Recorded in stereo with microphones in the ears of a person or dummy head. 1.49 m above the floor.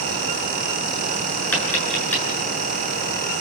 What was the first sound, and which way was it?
Tapping, 10° left (ahead or behind).